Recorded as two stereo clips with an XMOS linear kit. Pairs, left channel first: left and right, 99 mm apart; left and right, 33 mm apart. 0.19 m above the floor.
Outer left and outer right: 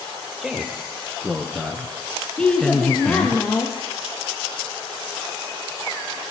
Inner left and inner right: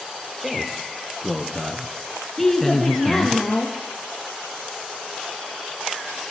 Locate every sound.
0.4 s a man speaking: 5° right (ahead or behind), 5.5 m; by 3.4 s 15° left (ahead or behind), 1.8 m
2.4 s a woman speaking: 10° left (ahead or behind), 5.5 m